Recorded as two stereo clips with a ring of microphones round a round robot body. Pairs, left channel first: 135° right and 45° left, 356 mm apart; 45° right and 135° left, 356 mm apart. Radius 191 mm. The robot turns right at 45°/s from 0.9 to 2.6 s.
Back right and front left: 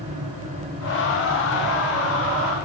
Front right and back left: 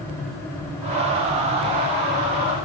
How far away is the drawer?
No drawer in this recording.